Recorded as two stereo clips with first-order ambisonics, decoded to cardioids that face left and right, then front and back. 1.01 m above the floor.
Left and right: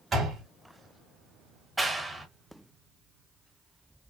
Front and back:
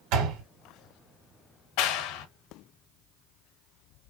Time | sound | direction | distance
0.1 | a door slam | 165° right | 3 m
1.8 | a clap | 5° right | 1.1 m